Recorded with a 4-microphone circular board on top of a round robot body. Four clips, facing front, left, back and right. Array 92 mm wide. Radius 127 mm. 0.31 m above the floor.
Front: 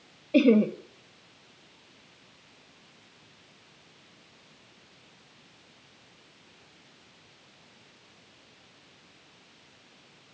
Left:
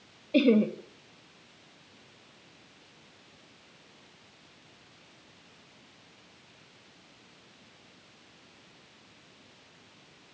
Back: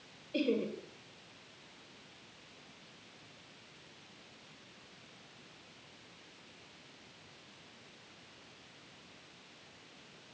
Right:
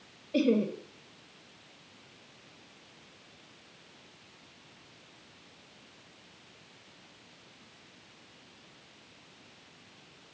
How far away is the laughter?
About 1.8 m.